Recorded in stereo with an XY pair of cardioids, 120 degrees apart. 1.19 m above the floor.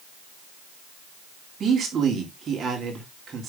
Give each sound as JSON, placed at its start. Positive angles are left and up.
{"t": 1.6, "sound": "a man speaking", "azimuth_deg": -40, "distance_m": 3.0}